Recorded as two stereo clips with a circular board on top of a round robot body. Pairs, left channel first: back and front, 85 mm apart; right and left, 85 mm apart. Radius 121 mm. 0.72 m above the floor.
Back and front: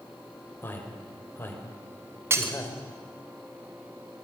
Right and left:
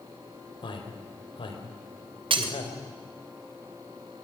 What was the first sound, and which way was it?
A man speaking, 115° right.